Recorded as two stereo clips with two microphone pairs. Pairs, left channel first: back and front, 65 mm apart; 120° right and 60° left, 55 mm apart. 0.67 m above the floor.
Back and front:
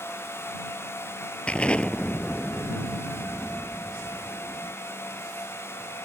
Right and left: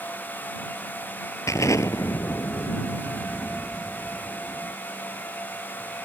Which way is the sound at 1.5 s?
105° right.